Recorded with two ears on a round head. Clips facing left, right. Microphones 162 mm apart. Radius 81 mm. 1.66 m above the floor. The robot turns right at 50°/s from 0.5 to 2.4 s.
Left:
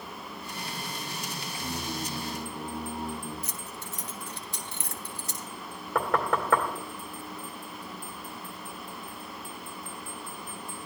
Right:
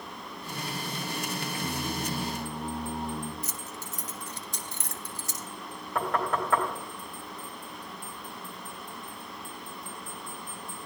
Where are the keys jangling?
40° right (ahead or behind), 1.1 m.